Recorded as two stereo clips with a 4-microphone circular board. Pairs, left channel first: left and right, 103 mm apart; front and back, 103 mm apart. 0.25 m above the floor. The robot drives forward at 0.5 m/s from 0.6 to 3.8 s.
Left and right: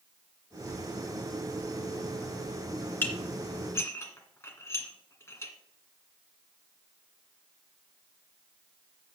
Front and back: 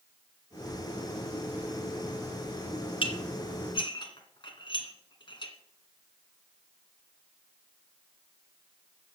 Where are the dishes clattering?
25° left, 2 m; by 5.5 s 30° left, 1.7 m.